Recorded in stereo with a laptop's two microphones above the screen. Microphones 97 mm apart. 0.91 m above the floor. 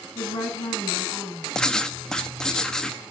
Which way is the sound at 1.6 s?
5° left (ahead or behind).